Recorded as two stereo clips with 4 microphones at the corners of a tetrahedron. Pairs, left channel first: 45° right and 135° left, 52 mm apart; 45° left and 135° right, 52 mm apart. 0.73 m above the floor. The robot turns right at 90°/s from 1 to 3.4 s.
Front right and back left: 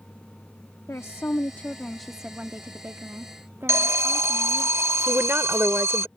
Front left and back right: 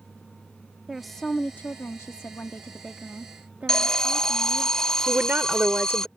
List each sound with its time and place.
0.9 s a woman speaking: 50° right; by 4.7 s 165° left
3.7 s an alarm: 125° left
5.1 s a woman speaking: 175° left